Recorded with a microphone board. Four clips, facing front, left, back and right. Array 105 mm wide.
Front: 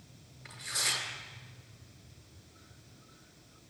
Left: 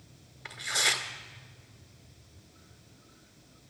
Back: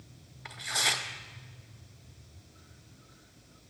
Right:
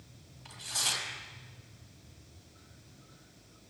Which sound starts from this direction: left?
Tearing paper, at 0.5 s.